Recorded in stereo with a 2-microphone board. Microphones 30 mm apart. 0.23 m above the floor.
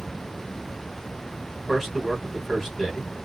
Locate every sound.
1.7 s a man speaking: centre (ahead or behind), 1.2 m